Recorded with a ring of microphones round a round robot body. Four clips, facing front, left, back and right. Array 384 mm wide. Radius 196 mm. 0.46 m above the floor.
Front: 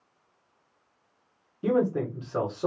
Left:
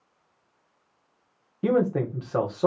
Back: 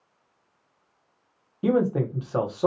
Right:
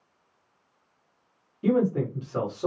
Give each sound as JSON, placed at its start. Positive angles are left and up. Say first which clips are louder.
{"t": 1.6, "sound": "a man speaking", "louder": "left 1 dB, back 2 dB", "azimuth_deg": 130, "distance_m": 1.4}